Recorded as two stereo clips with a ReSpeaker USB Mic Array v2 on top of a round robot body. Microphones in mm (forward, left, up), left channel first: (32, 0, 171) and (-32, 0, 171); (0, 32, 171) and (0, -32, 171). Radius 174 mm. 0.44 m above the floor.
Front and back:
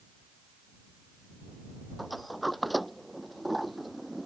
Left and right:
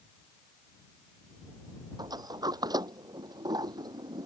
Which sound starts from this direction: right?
A sliding door, at 2.0 s.